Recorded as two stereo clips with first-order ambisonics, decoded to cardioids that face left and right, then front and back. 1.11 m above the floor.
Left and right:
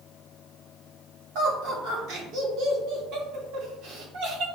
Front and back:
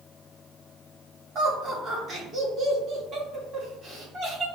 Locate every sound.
1.4 s laughter: 120° right, 1.8 m